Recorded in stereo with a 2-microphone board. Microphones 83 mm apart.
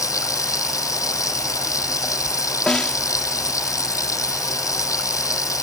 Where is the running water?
40° left (ahead or behind).